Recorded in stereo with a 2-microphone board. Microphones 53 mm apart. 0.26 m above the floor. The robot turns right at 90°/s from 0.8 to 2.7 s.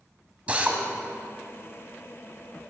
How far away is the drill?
About 1.4 m.